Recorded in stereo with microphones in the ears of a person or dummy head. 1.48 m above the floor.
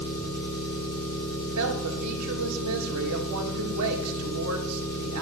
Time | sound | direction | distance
0.0 | an engine running | 45° left (ahead or behind) | 6 m
1.4 | a woman speaking | 85° right | 2 m